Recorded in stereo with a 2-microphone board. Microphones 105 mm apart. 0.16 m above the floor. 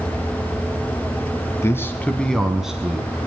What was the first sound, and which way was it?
A man speaking, 25° left (ahead or behind).